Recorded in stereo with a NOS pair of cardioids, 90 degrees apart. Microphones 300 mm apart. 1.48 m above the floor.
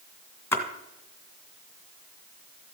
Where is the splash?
5° left, 1.8 m.